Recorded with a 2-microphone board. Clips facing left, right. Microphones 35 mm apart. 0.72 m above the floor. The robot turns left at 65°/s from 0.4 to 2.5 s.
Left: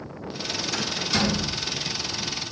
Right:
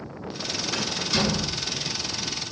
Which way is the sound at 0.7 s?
25° right (ahead or behind).